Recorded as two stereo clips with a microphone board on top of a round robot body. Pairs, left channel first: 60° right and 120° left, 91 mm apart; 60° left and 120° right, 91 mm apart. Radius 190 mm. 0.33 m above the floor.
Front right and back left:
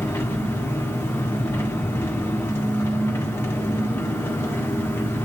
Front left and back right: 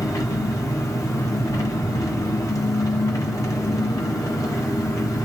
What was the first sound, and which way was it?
An engine running, 5° left.